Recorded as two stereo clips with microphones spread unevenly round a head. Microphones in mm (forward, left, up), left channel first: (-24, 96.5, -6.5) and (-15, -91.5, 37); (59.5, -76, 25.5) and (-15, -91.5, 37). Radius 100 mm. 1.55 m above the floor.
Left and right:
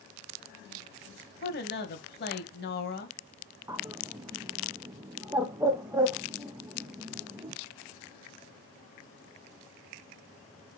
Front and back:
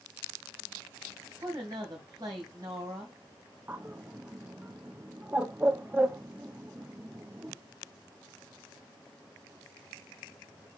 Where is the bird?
130° right, 0.8 m.